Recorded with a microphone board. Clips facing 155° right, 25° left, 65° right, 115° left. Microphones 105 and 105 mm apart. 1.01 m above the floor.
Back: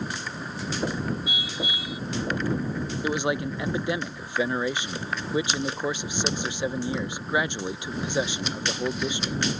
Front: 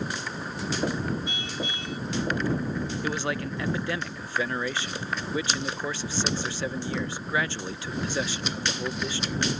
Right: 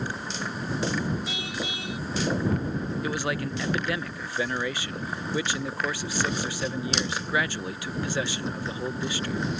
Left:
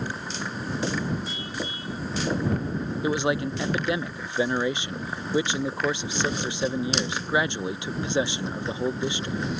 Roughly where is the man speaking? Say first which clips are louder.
Back 7 dB, left 8 dB; behind left.